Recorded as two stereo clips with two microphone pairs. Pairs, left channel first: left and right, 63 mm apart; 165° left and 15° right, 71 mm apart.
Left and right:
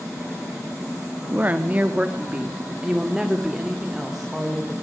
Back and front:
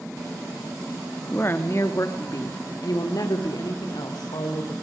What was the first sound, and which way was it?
A woman speaking, 145° right.